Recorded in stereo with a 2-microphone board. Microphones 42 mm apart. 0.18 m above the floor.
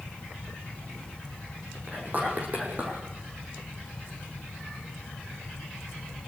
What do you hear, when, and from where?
1.9 s whispering: 40° right (ahead or behind), 8 m